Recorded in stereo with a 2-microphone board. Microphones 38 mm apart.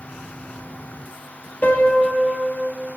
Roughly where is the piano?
Left.